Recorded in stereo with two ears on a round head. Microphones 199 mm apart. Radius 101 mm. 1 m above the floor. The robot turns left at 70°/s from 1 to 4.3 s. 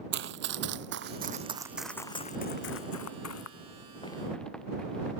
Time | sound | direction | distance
0.1 | running footsteps | 55° right (ahead or behind) | ?